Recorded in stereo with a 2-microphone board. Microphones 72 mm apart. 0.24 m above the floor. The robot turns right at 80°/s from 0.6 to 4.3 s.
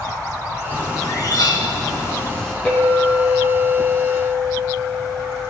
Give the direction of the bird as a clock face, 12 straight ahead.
11 o'clock.